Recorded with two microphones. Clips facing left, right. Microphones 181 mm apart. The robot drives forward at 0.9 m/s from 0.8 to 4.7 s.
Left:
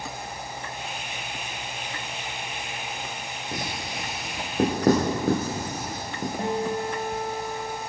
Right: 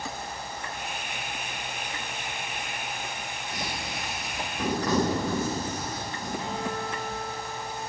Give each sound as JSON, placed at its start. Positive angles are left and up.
{"t": 3.5, "sound": "writing", "side_deg": 65, "distance_m": 5.0}
{"t": 6.4, "sound": "a guitar", "side_deg": 50, "distance_m": 3.5}